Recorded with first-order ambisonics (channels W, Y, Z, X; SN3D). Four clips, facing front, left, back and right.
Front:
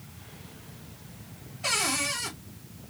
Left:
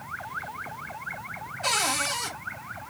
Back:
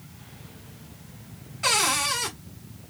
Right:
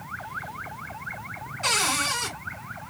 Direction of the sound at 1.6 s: 150° right.